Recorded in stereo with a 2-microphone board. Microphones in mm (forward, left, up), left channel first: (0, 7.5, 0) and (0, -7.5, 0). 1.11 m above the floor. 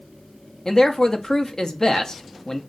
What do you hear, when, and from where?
0.7 s a man speaking: 45° left (ahead or behind), 0.7 m